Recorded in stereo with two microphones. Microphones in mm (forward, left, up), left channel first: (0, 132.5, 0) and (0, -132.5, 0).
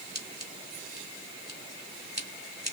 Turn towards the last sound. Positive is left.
turn(degrees=-40)  # may be behind; listen again after turning